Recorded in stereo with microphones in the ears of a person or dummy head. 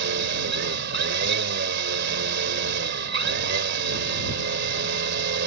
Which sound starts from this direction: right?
A machine running, at 0.0 s.